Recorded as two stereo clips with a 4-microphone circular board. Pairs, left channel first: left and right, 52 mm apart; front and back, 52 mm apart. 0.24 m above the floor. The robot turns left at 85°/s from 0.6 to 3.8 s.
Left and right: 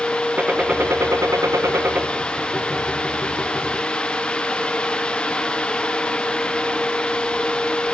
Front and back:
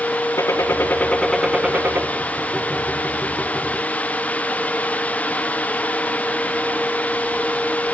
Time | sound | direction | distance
0.4 | a gunshot | 25° right | 1.2 m